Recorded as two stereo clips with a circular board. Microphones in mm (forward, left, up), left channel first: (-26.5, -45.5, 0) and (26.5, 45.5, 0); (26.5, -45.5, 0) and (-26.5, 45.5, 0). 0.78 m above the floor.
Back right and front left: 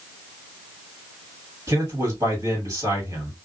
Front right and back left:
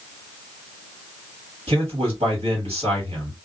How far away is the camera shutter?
No camera shutter in this recording.